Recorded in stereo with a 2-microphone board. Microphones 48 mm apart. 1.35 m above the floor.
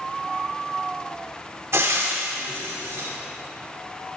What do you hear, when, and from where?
1.7 s frying: 70° right (ahead or behind), 3 m